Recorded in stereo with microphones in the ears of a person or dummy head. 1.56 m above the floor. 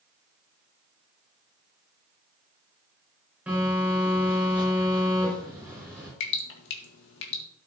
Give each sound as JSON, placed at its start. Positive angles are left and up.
{"t": 3.5, "sound": "a phone buzzing", "side_deg": -10, "distance_m": 6.0}
{"t": 6.2, "sound": "dripping", "side_deg": 75, "distance_m": 1.7}